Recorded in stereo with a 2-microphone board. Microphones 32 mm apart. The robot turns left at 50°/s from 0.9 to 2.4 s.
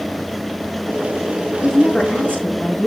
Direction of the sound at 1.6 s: 150° left.